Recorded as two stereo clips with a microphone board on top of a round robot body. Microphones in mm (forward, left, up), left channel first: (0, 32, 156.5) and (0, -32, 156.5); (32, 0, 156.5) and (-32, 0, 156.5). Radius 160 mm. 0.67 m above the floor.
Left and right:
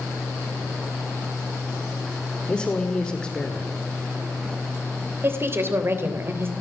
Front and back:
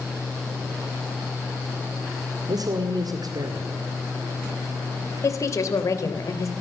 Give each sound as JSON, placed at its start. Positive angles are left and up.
{"t": 2.5, "sound": "a man speaking", "azimuth_deg": 165, "distance_m": 2.0}
{"t": 5.2, "sound": "a woman speaking", "azimuth_deg": -40, "distance_m": 3.0}